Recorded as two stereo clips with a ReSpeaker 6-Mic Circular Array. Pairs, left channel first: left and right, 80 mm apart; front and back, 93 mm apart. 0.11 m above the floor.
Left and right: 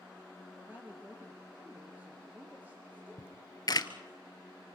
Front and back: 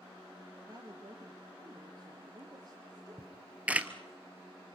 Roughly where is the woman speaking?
Behind right.